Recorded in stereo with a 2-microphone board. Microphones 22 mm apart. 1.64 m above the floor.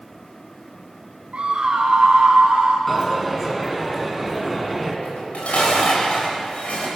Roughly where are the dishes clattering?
Left.